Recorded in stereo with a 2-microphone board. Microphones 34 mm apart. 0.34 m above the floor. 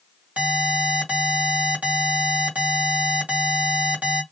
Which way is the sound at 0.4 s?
45° right (ahead or behind).